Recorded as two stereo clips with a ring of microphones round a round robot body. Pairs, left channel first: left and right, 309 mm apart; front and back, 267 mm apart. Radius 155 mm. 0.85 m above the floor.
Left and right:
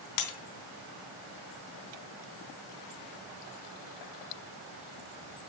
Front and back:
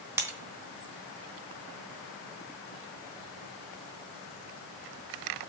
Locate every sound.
0.2 s breaking glass: 100° left, 3.5 m